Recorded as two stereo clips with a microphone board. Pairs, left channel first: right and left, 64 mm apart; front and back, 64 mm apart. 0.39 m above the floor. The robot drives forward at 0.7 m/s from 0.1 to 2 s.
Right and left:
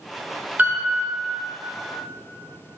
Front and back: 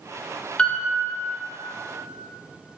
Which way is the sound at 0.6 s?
60° left.